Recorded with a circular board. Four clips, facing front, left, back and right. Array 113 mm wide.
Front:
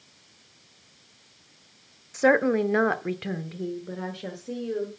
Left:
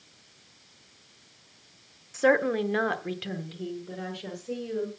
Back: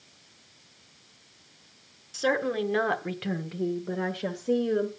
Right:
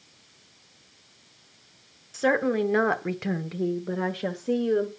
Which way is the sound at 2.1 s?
15° left.